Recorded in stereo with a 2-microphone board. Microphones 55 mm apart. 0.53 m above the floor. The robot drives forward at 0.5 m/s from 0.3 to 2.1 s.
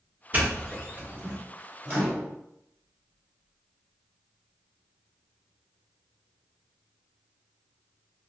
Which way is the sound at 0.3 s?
30° right (ahead or behind).